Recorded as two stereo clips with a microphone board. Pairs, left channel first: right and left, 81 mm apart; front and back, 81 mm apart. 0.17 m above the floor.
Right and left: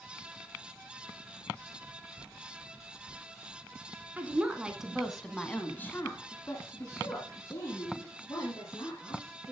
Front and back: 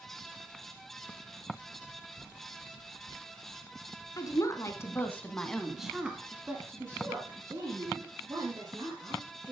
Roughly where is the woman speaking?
Ahead left.